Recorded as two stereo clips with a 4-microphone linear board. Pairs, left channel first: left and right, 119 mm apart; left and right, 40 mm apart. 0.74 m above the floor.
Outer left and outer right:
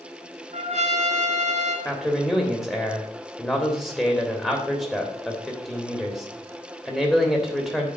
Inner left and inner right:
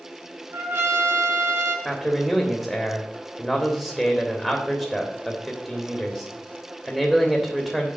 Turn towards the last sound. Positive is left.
turn(degrees=10)  # may be behind; listen again after turning